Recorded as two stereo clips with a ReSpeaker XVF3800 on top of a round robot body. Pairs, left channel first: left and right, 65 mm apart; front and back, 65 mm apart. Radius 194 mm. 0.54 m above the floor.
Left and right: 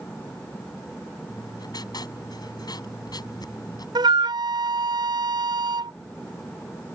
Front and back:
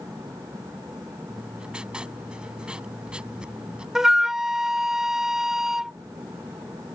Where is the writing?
105° left.